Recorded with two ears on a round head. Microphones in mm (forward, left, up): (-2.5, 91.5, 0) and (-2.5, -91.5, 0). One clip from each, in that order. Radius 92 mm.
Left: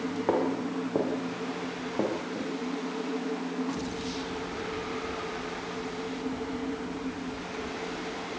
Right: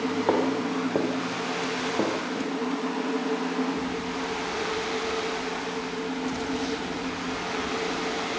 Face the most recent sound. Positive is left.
turn(degrees=0)  # may be behind; listen again after turning